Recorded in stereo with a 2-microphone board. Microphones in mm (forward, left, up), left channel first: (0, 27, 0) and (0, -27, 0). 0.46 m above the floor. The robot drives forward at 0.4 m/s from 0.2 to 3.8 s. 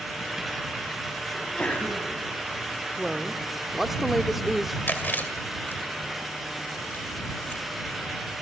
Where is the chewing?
35° left (ahead or behind), 2.5 m.